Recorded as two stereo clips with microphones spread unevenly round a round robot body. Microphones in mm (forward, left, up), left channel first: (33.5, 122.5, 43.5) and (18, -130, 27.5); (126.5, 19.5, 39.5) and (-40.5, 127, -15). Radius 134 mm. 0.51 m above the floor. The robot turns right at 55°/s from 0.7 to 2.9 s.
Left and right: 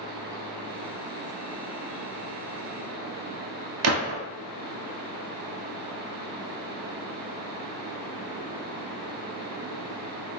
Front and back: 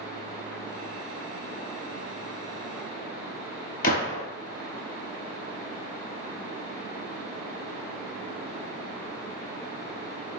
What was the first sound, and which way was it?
A gunshot, 65° right.